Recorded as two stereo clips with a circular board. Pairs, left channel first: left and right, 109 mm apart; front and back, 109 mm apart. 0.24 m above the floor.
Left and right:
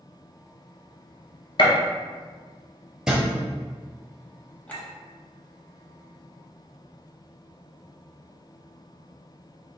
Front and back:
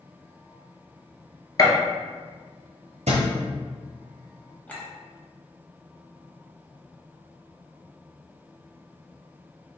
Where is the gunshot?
55° left, 0.8 m.